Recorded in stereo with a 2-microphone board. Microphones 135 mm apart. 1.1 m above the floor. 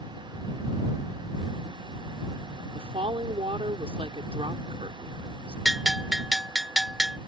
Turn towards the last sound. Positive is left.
turn(degrees=-5)  # may be behind; listen again after turning